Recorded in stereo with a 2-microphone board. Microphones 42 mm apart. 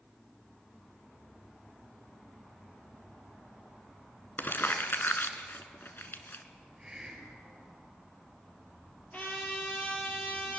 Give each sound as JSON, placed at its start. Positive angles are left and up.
{"t": 4.4, "sound": "crumpling", "side_deg": 60, "distance_m": 1.3}
{"t": 6.5, "sound": "a hiss", "side_deg": -15, "distance_m": 4.5}
{"t": 9.1, "sound": "a trumpet", "side_deg": 40, "distance_m": 4.5}